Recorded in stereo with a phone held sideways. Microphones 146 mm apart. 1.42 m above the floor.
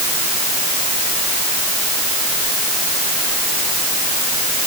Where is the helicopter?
I don't hear a helicopter.